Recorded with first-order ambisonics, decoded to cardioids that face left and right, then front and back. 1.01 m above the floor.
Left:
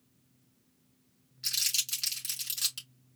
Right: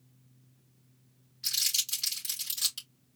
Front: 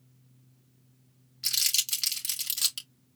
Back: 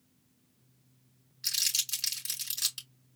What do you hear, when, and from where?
1.4 s crumpling: 10° left, 3 m